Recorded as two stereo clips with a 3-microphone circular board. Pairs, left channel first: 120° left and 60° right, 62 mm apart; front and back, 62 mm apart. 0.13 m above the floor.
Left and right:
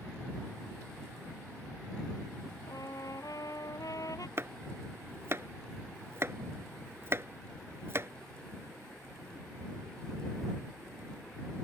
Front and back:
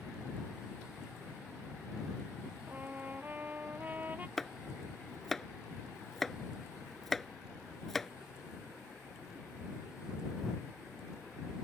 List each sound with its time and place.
2.7 s a trumpet: 120° left
4.4 s chopping: 85° right